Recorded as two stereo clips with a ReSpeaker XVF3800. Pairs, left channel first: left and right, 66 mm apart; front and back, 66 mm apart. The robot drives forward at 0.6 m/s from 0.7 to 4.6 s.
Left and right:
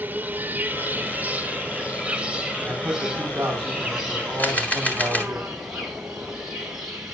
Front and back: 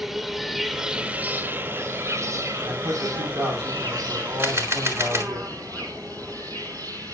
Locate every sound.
0.0 s an insect: 95° right, 0.9 m; by 7.1 s 170° right, 2.5 m
2.6 s a man speaking: 150° right, 8 m; by 5.4 s 155° right, 9.5 m
4.4 s a camera shutter: 145° left, 1.6 m